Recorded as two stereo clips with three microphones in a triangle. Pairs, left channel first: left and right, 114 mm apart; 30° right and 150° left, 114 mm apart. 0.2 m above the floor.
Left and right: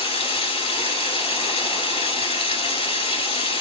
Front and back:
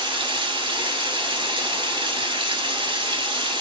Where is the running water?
115° left, 1.6 m.